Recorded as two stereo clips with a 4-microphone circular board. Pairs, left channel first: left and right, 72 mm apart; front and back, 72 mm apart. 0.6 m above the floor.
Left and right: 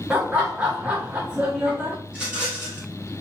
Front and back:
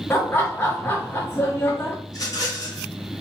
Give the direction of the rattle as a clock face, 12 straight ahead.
1 o'clock.